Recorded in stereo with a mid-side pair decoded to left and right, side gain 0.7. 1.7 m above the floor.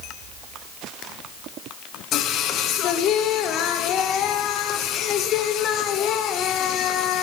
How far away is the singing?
About 0.7 m.